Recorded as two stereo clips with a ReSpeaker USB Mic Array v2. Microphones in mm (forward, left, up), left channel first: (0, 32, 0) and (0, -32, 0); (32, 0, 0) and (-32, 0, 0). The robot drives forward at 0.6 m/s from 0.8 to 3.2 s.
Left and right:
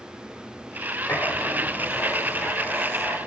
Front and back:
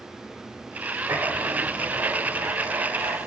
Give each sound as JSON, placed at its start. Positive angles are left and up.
{"t": 1.1, "sound": "writing", "azimuth_deg": 140, "distance_m": 2.0}